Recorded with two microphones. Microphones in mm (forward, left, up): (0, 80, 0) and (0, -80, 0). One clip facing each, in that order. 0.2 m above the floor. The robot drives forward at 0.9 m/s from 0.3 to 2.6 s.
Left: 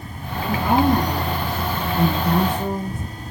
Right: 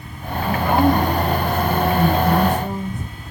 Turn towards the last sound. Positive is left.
turn(degrees=65)  # may be behind; listen again after turning